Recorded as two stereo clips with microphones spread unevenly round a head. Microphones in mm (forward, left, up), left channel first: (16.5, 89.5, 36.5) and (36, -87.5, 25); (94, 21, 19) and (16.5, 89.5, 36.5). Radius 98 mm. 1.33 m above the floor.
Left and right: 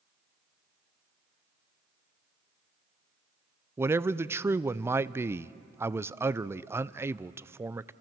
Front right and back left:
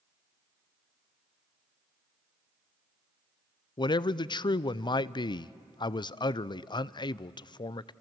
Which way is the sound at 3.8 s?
10° right.